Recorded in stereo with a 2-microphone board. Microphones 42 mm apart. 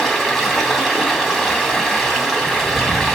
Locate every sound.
0.0 s running water: 5° left (ahead or behind), 2.5 m